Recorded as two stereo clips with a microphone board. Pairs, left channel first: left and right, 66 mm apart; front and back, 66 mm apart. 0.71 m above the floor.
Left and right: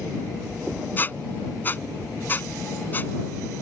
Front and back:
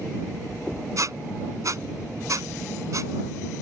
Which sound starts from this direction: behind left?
A squeak, at 1.0 s.